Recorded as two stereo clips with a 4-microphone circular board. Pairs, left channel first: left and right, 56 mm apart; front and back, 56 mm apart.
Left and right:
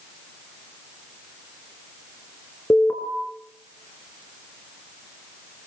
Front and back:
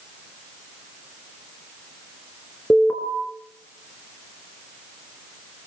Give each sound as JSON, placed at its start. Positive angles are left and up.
{"t": 2.7, "sound": "an alarm", "azimuth_deg": 50, "distance_m": 5.0}